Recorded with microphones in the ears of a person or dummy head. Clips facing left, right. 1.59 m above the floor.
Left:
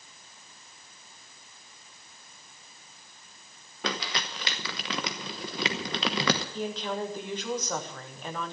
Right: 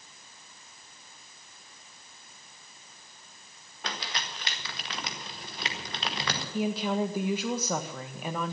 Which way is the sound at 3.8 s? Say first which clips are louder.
Left 5 dB; 55° left (ahead or behind).